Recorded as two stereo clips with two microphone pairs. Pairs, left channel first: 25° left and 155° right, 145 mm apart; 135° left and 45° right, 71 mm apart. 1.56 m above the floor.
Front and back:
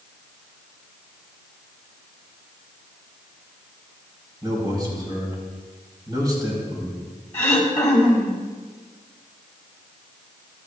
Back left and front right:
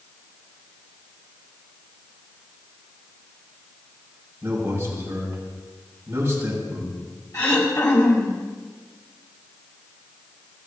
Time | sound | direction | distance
4.4 | a man speaking | 95° right | 5 m
7.3 | throat clearing | 95° left | 2 m